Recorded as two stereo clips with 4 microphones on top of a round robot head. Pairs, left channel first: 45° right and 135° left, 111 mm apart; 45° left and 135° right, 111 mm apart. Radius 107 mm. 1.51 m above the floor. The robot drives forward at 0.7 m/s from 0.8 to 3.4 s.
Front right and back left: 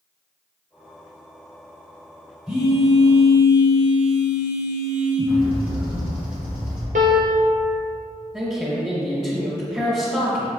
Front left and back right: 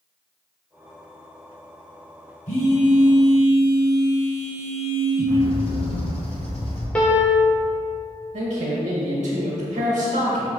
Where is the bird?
60° left, 1.3 m.